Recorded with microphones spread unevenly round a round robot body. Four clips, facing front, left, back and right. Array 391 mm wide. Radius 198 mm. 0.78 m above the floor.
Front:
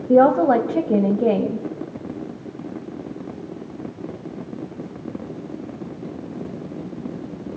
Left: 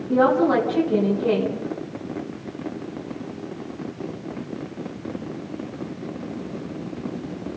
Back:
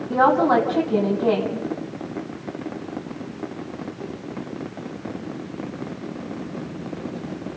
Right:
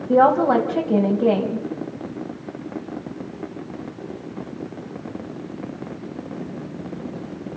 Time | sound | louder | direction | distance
0.1 | a woman speaking | right 3 dB, front 3 dB | 25° right | 4 m